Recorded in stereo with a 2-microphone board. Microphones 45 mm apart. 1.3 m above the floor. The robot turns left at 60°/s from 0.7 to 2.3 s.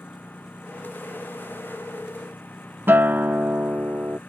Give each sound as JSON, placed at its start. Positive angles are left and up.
{"t": 0.0, "sound": "a lawn mower", "azimuth_deg": 140}
{"t": 2.9, "sound": "a guitar", "side_deg": -50}